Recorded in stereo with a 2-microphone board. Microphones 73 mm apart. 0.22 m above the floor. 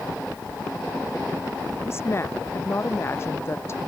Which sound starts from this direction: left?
A woman speaking, at 1.9 s.